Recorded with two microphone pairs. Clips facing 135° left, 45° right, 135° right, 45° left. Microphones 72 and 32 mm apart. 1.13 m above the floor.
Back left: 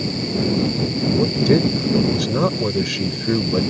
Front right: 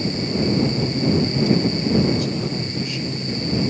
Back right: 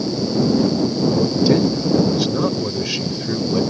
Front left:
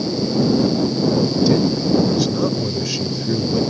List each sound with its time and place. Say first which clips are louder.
1.2 s a man speaking: back left 6 dB, back right 1 dB; 155° left